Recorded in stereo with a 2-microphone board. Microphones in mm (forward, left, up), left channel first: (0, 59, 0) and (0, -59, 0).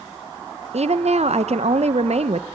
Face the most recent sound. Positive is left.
turn(degrees=-65)  # may be behind; listen again after turning